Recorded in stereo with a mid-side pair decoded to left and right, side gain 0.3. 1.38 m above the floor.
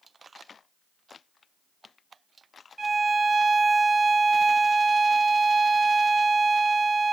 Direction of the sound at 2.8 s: 45° right.